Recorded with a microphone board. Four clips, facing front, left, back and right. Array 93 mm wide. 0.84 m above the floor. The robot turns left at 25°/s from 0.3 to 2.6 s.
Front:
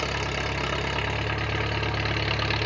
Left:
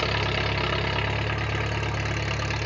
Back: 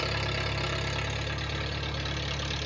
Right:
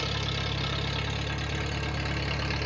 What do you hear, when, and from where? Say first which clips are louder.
0.0 s an engine running: left 7 dB, front 3 dB; 70° left, 0.8 m; by 2.7 s 10° left, 0.8 m